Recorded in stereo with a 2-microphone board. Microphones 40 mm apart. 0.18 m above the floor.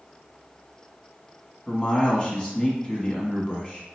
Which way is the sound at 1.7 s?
20° left (ahead or behind).